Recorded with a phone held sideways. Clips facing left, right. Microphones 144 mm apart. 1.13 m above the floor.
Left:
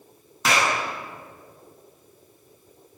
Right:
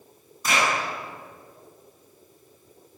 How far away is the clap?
About 10 m.